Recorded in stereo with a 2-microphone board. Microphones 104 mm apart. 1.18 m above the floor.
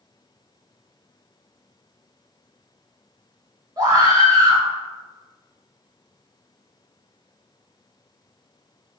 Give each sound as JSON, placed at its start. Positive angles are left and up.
{"t": 3.8, "sound": "a scream", "side_deg": -35, "distance_m": 1.4}